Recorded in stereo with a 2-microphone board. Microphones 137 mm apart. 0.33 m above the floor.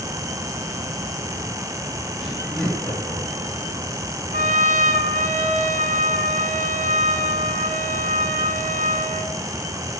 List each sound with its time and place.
2.2 s laughter: centre (ahead or behind), 6 m
4.3 s a trumpet: 80° right, 0.8 m